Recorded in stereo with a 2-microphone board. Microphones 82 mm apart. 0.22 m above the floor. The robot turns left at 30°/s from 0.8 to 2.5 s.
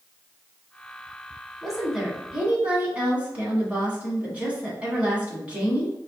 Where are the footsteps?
I don't hear footsteps.